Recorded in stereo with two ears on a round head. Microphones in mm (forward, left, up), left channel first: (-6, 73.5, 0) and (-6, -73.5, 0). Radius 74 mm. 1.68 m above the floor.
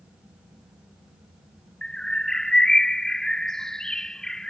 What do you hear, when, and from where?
1.8 s a bird: 5° left (ahead or behind)